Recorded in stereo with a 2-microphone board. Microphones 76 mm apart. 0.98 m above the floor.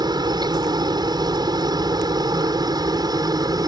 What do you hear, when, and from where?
0.0 s a helicopter: 70° right (ahead or behind); by 3.7 s 60° right (ahead or behind)